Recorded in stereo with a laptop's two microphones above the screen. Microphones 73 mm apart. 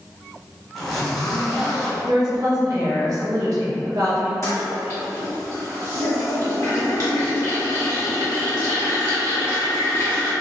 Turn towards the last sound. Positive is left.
turn(degrees=45)  # may be behind; listen again after turning